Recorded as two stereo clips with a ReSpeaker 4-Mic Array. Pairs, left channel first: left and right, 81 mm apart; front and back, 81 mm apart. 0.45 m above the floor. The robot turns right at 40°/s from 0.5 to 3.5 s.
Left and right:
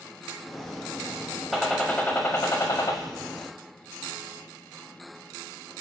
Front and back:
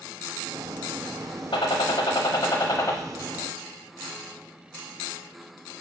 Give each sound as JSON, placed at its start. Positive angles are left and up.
{"t": 1.5, "sound": "a gunshot", "azimuth_deg": 0, "distance_m": 0.6}